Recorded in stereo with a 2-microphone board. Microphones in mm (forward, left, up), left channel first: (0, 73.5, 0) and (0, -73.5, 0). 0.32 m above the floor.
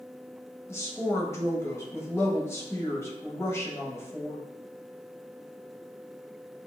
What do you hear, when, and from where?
0.7 s a woman speaking: 20° left (ahead or behind), 1.3 m